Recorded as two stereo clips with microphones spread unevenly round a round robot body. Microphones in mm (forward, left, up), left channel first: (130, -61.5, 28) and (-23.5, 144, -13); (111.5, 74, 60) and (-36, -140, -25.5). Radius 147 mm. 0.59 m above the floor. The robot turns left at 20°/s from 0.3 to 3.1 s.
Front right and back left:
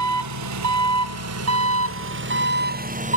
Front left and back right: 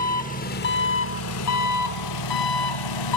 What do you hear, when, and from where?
0.0 s an engine running: 125° left, 1.0 m; by 3.2 s 65° left, 1.0 m